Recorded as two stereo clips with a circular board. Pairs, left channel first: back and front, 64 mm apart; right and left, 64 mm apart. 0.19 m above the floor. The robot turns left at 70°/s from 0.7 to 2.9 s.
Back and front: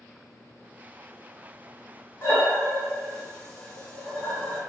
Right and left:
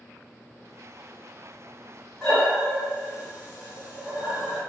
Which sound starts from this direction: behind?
Breathing, at 2.2 s.